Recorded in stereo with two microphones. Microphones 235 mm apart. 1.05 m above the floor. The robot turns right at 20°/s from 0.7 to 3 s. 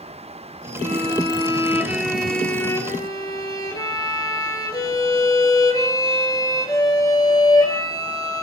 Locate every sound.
0.8 s a violin: 30° right, 4 m; by 8.4 s 15° left, 4 m